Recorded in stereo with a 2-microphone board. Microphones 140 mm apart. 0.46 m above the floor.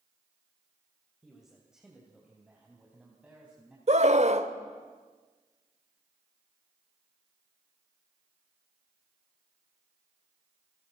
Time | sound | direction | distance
1.2 | a man speaking | centre (ahead or behind) | 3 m
3.9 | a scream | 55° right (ahead or behind) | 1.2 m